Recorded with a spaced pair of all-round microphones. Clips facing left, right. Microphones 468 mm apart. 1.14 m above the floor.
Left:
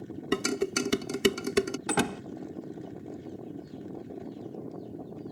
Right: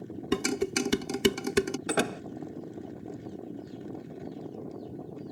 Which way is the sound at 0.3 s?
5° right (ahead or behind).